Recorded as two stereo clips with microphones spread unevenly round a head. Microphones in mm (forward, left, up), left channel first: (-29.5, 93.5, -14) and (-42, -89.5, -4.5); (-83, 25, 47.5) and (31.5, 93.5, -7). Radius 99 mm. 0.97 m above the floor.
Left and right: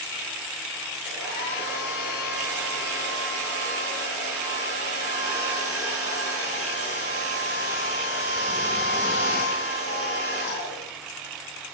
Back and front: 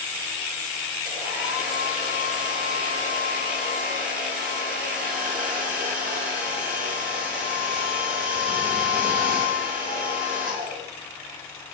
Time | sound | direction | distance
1.1 | a hair dryer | 10° right | 5.5 m